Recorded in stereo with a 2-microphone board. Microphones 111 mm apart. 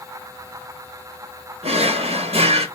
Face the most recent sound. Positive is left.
turn(degrees=-65)  # may be behind; listen again after turning